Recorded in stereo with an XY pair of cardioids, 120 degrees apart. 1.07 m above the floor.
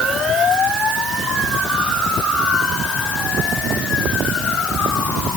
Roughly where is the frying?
No frying in this recording.